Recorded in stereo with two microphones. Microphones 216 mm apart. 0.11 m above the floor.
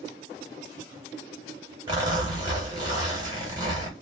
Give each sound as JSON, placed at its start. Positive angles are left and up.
{"t": 1.9, "sound": "a zipper", "side_deg": -20, "distance_m": 2.0}